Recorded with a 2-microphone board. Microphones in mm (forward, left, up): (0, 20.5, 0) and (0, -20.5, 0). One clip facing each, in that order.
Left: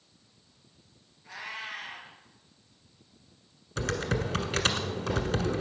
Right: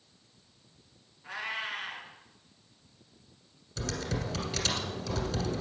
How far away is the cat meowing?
About 3 m.